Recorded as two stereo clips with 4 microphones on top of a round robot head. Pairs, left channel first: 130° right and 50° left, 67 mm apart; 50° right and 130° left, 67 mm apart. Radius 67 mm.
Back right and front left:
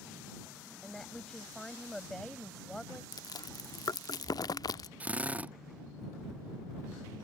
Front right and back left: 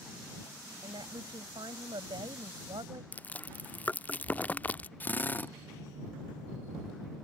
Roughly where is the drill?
Ahead.